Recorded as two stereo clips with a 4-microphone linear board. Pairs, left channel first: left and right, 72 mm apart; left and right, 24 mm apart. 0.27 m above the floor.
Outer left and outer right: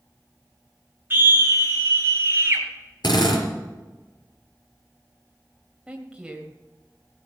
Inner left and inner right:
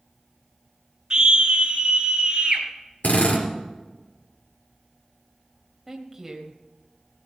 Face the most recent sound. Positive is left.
turn(degrees=-15)  # may be behind; listen again after turning